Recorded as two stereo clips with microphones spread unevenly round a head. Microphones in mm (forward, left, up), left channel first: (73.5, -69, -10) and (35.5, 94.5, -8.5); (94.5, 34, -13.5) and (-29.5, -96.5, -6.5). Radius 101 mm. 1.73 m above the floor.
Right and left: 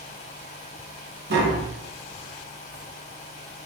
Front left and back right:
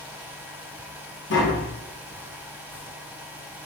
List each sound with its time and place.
0.0 s a fan: 65° right, 1.3 m
1.3 s tapping: 85° left, 1.4 m